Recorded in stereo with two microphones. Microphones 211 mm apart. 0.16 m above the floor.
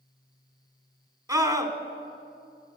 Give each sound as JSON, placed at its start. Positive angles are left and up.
{"t": 1.3, "sound": "a scream", "side_deg": -15, "distance_m": 1.2}